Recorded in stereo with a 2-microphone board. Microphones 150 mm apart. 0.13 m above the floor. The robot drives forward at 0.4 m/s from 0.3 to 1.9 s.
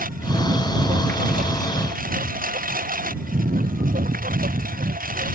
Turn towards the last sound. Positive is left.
turn(degrees=-70)  # may be behind; listen again after turning